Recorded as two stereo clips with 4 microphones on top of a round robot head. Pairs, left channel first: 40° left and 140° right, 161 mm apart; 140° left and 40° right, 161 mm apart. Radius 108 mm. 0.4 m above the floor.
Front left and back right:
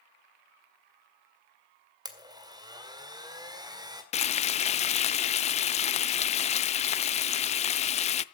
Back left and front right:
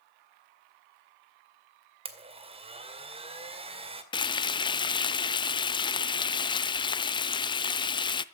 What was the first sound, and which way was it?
A blender, 80° right.